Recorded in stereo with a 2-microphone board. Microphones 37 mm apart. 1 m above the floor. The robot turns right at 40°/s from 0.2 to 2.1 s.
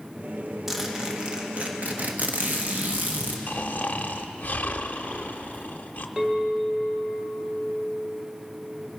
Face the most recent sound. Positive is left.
turn(degrees=-15)  # may be behind; listen again after turning